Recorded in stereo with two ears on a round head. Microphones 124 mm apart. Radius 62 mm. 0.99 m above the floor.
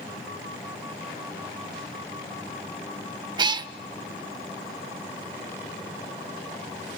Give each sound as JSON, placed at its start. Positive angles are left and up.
{"t": 3.4, "sound": "a cat meowing", "side_deg": -35, "distance_m": 0.6}